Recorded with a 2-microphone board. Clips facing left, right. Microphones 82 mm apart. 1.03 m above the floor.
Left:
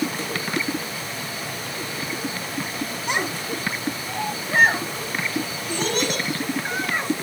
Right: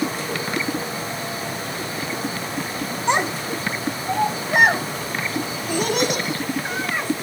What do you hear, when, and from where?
3.1 s a child speaking: 30° right (ahead or behind), 3 m; by 7.2 s 5° right (ahead or behind), 6.5 m